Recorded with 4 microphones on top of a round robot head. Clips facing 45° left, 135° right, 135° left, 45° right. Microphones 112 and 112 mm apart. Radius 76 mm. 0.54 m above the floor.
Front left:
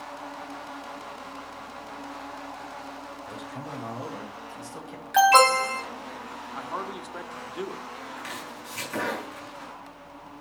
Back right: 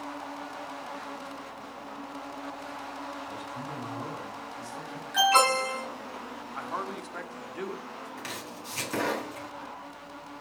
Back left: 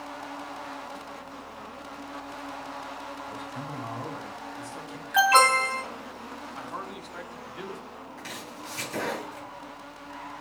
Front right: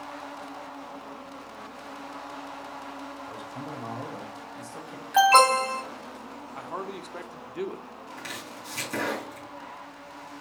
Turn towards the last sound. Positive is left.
turn(degrees=-75)